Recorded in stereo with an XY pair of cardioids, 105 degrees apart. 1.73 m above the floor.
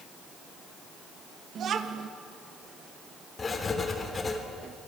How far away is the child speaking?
About 1.9 m.